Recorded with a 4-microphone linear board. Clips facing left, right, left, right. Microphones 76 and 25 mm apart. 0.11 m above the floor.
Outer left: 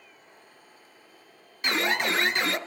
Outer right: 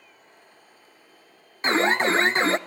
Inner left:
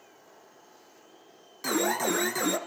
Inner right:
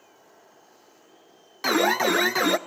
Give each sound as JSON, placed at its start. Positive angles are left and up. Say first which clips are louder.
{"t": 1.6, "sound": "an alarm", "louder": "outer right 5 dB, inner right 6 dB", "side_deg": -35, "distance_m": 1.0}